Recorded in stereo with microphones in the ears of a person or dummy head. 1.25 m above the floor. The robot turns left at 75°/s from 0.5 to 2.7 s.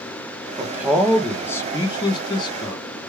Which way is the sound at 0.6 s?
15° right (ahead or behind).